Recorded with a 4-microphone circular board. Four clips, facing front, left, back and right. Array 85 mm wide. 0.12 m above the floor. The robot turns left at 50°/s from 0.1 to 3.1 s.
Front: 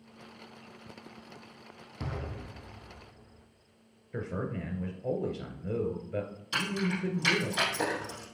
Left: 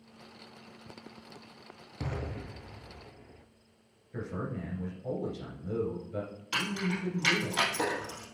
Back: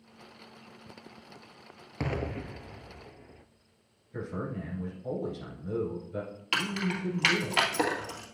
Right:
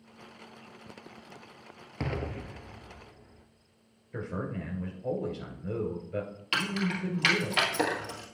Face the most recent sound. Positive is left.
turn(degrees=-155)